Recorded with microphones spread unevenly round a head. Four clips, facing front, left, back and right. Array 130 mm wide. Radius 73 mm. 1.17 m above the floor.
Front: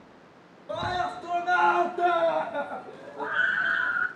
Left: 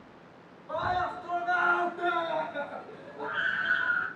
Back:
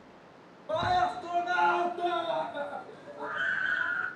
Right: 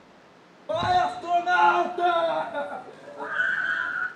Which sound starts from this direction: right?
A scream, at 0.7 s.